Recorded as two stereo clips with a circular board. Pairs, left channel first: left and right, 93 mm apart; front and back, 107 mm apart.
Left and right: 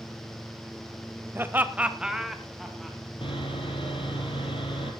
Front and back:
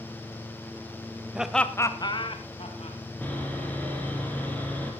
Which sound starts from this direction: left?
Sawing, at 3.2 s.